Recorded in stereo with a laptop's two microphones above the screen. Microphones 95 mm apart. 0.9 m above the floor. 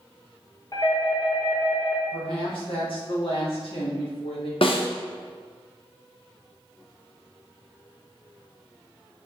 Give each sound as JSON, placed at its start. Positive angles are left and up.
{"t": 0.7, "sound": "a doorbell", "side_deg": 40, "distance_m": 1.0}
{"t": 2.1, "sound": "a woman speaking", "side_deg": 65, "distance_m": 1.5}
{"t": 4.6, "sound": "a snare drum", "side_deg": 65, "distance_m": 0.5}